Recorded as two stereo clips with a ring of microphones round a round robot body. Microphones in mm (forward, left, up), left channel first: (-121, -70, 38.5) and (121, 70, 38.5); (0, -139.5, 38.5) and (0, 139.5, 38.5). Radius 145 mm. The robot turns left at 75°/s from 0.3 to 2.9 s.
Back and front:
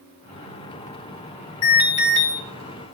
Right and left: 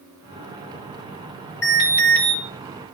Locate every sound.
1.6 s an alarm: 170° right, 3 m; by 2.3 s 135° left, 3 m